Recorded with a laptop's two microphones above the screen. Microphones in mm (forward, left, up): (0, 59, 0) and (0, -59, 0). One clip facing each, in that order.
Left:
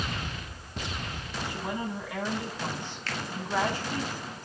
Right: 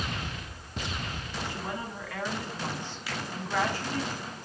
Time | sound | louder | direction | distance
1.4 | a woman speaking | left 4 dB | 20° left (ahead or behind) | 6.5 m
3.1 | a finger snap | left 1 dB | 10° right (ahead or behind) | 1.5 m